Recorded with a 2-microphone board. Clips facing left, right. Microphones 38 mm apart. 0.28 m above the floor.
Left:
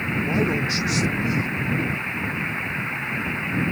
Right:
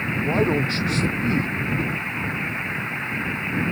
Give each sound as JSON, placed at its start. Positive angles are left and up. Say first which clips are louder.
{"t": 0.2, "sound": "a man speaking", "louder": "right 3 dB", "side_deg": -20}